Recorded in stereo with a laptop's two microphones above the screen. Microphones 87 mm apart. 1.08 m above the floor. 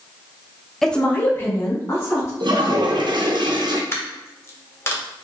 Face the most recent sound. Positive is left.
turn(degrees=30)  # may be behind; listen again after turning